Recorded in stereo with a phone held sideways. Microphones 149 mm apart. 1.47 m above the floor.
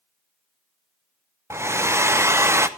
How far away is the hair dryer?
About 0.7 m.